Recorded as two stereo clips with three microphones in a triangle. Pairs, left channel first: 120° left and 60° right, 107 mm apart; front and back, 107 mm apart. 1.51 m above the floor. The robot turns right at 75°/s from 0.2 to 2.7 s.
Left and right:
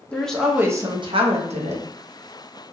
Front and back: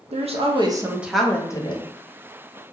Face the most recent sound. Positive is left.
turn(degrees=25)